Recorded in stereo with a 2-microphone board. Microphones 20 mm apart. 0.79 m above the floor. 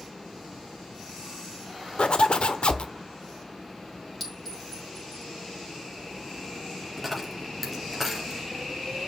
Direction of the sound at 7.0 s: Centre (ahead or behind).